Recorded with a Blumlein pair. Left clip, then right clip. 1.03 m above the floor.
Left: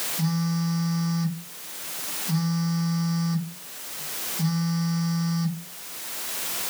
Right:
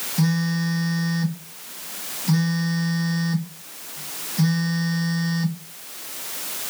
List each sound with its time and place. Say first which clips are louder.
0.2 s a phone buzzing: right 4 dB; 45° right, 0.7 m